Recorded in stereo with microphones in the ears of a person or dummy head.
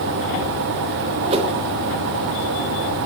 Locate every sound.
1.3 s a whoosh: 35° right (ahead or behind), 1.6 m